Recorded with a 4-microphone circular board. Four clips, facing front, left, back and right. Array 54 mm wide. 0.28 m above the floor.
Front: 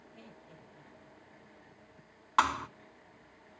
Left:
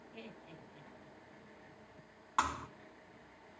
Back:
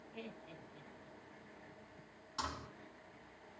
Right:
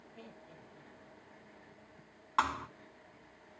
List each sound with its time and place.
0.1 s laughter: 130° left, 7.5 m
2.4 s a thud: 15° right, 1.0 m